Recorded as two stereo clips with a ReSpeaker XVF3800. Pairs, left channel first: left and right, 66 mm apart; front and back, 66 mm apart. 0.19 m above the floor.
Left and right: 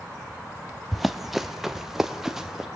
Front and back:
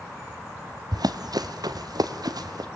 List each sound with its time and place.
0.9 s running footsteps: straight behind, 1.1 m; by 2.7 s 175° right, 2 m